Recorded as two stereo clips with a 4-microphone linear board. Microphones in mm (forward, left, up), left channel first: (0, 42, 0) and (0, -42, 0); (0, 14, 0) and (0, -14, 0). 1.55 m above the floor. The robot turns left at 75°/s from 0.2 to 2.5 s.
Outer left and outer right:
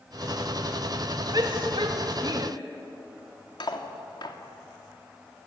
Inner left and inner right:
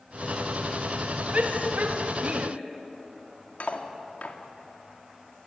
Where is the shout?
50° right (ahead or behind), 2.5 m; by 2.5 s 40° right (ahead or behind), 2.5 m.